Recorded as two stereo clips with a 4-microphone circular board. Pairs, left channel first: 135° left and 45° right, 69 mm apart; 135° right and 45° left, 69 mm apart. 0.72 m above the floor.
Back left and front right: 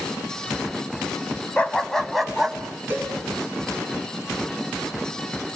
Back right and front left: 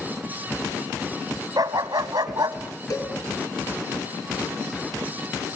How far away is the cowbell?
About 6.5 m.